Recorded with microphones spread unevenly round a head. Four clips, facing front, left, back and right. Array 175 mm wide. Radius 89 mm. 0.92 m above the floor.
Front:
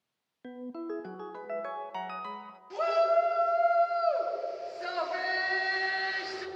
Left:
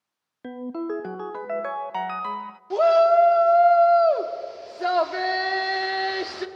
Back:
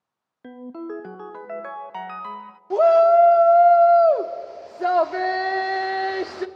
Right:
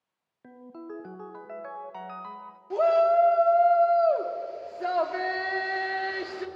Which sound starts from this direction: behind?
A shout, at 2.7 s.